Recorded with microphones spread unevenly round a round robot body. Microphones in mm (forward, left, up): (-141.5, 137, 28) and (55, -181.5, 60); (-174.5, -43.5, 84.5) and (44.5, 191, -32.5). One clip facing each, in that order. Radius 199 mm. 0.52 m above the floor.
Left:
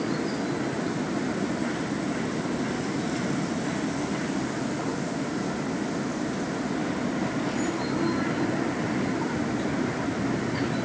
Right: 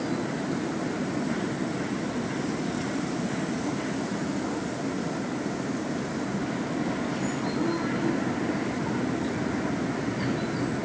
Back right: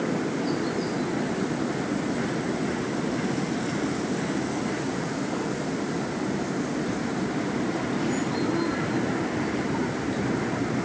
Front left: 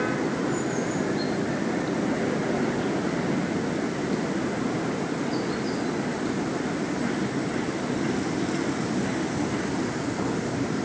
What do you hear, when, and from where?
Only background noise.